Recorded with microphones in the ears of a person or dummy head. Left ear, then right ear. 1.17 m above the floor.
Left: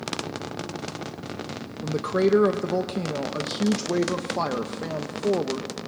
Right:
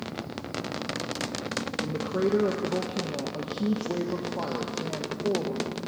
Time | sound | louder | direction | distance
1.8 | a woman speaking | left 8 dB | 60° left (ahead or behind) | 0.8 m